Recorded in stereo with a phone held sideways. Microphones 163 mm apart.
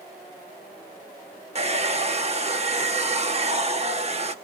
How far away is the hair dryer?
About 0.8 m.